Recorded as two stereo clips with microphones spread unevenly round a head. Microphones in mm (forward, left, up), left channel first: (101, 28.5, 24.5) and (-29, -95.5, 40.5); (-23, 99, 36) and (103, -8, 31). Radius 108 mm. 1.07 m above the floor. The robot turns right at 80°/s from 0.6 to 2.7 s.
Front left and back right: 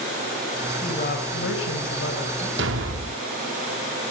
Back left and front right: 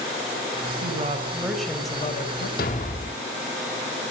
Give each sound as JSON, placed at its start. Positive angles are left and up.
{"t": 0.8, "sound": "a woman speaking", "azimuth_deg": -15, "distance_m": 4.5}
{"t": 2.6, "sound": "a thud", "azimuth_deg": -175, "distance_m": 1.1}